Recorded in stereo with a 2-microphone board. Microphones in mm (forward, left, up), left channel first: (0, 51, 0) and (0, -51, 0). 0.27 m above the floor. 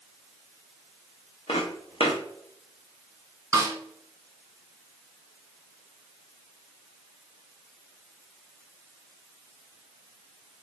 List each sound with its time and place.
1.5 s footsteps: 65° left (ahead or behind), 1.3 m
3.5 s a snare drum: 30° right (ahead or behind), 0.8 m